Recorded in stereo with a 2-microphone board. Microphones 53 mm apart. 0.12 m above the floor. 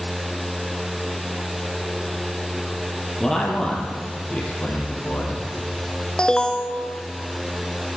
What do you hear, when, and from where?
3.2 s a man speaking: 5° left (ahead or behind), 3 m; by 6.1 s 50° left (ahead or behind), 5 m
6.2 s an alarm: 20° left (ahead or behind), 0.8 m